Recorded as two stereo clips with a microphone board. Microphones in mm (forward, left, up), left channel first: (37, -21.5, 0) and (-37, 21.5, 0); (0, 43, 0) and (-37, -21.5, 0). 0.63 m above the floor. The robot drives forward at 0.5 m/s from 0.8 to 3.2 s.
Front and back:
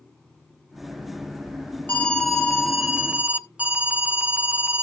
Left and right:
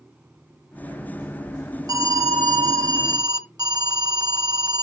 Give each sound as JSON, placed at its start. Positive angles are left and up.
{"t": 1.9, "sound": "an alarm", "azimuth_deg": -100, "distance_m": 1.0}